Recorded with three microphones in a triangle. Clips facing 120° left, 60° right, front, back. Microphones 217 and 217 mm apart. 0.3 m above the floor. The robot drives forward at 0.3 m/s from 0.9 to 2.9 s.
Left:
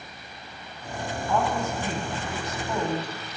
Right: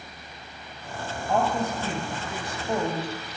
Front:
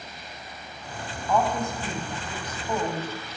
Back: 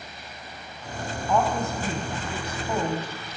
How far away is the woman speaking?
About 1.9 m.